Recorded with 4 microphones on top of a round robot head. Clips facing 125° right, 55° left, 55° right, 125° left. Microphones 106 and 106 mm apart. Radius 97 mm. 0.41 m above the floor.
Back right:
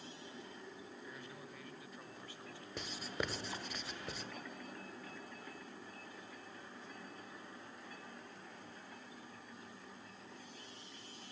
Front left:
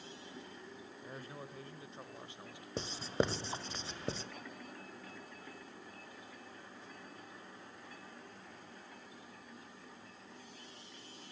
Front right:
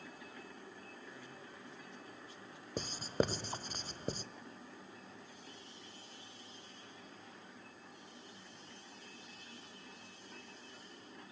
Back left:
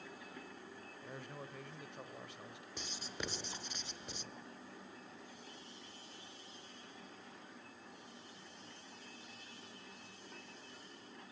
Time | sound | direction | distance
1.0 | a man speaking | 100° left | 2.5 m
2.8 | writing | 5° right | 1.2 m